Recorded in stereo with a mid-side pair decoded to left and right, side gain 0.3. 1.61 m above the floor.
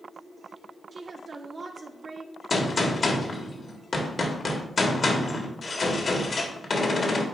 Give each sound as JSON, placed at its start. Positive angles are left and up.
{"t": 0.9, "sound": "a woman speaking", "azimuth_deg": -60, "distance_m": 1.1}
{"t": 2.5, "sound": "a gunshot", "azimuth_deg": 50, "distance_m": 1.5}